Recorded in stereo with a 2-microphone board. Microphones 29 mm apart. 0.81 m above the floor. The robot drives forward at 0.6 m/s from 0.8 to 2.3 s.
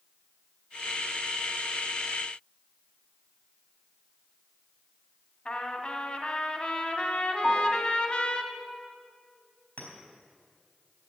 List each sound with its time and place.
5.5 s a trumpet: 35° left (ahead or behind), 1.2 m
7.4 s a piano: 5° left (ahead or behind), 1.8 m
9.8 s a clink: 65° left (ahead or behind), 4 m